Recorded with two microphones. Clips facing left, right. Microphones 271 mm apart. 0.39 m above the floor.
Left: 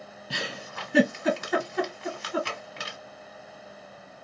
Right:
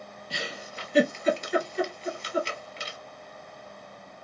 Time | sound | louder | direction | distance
0.3 | a giggle | left 2 dB | 75° left (ahead or behind) | 1.1 m